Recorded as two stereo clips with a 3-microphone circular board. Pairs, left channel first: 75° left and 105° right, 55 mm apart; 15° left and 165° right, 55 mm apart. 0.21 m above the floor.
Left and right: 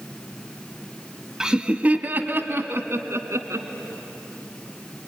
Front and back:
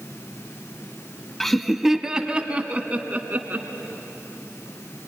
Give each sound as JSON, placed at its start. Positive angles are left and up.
{"t": 1.4, "sound": "laughter", "azimuth_deg": -55, "distance_m": 1.0}